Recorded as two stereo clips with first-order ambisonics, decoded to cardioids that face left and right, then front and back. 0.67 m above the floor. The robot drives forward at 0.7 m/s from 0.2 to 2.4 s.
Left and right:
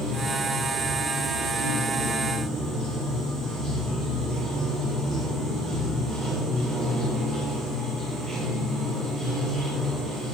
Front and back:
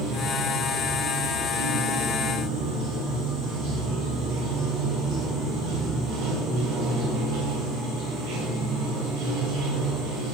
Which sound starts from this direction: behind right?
Running water, at 0.0 s.